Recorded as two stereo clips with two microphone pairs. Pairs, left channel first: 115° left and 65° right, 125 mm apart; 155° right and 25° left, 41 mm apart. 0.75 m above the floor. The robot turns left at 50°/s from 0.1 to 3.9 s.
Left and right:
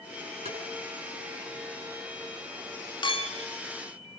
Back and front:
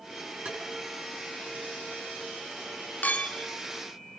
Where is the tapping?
30° right, 8 m; by 0.6 s 35° right, 8 m.